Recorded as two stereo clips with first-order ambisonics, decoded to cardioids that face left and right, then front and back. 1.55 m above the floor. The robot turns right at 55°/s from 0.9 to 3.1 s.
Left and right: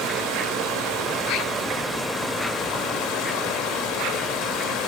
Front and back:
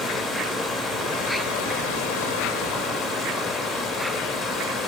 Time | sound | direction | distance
0.0 | running water | 50° right | 4 m